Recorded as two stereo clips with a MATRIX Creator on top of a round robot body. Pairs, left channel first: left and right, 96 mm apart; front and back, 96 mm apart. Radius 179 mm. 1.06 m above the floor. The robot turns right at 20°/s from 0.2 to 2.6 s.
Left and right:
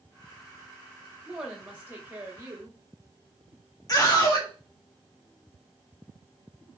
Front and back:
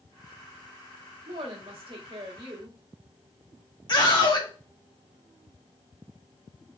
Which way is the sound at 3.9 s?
40° left.